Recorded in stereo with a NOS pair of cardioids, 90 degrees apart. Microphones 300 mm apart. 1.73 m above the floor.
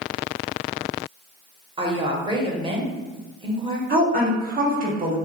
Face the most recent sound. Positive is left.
turn(degrees=-30)